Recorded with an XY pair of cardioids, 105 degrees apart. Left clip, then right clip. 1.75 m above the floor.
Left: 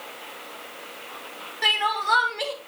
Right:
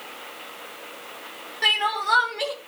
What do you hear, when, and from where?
1.6 s crying: straight ahead, 2 m